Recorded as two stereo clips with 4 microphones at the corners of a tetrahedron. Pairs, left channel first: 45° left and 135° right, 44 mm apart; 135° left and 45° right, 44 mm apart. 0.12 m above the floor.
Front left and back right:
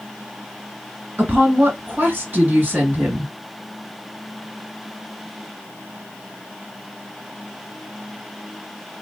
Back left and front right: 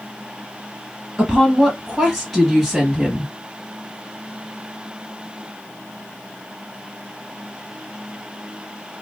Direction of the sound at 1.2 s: 145° right.